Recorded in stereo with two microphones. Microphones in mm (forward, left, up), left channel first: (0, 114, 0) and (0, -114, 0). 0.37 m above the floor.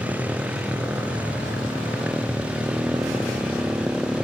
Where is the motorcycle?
5° right (ahead or behind).